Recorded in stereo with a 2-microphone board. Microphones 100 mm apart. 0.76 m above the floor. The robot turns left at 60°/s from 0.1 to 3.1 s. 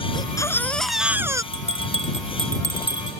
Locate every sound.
0.1 s a baby crying: 45° left; by 1.4 s 30° right
1.5 s a bell: 70° right (ahead or behind); by 3.2 s 5° right (ahead or behind)